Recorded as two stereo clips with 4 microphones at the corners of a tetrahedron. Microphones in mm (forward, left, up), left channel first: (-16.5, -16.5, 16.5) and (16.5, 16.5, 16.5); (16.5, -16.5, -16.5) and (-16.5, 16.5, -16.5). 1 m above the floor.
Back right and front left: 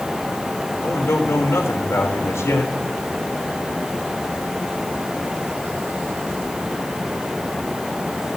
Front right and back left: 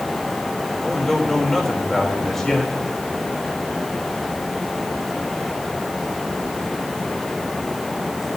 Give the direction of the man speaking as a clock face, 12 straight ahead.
4 o'clock.